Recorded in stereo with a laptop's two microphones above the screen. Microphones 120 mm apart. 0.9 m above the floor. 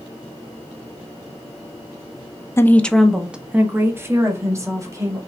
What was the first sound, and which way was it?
A woman speaking, 20° left (ahead or behind).